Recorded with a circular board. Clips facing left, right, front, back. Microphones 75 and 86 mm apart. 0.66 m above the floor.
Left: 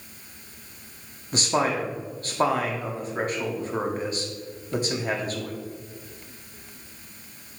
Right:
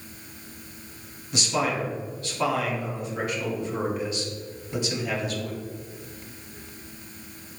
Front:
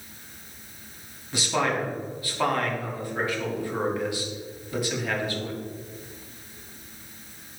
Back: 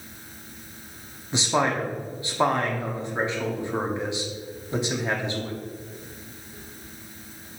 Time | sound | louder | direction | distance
1.3 | a man speaking | left 2 dB, back 2 dB | 120° left | 1.4 m